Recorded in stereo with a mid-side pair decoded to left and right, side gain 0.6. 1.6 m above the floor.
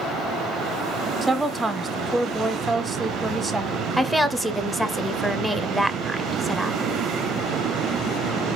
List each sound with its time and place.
1.2 s a woman speaking: 10° right, 0.6 m
4.0 s a woman speaking: straight ahead, 0.6 m